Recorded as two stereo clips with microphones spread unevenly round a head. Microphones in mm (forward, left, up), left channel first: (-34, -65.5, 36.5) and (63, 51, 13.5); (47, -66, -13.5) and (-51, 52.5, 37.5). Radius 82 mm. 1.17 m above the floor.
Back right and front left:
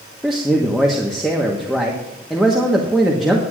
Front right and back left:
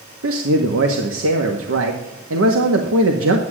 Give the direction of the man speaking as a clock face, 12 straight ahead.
7 o'clock.